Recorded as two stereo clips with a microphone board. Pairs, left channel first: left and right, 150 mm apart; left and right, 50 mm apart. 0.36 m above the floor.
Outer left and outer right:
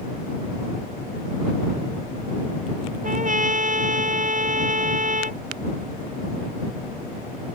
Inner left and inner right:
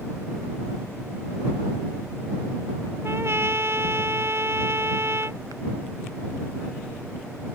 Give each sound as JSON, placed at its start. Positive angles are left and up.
{"t": 3.0, "sound": "a trumpet", "side_deg": -55}